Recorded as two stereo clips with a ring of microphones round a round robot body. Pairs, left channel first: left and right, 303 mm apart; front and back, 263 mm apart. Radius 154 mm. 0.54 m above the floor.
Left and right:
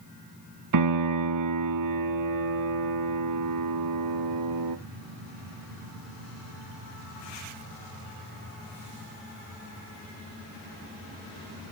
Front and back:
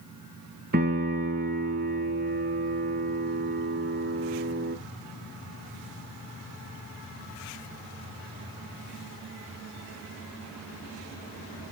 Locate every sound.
0.7 s a piano: 120° right, 0.9 m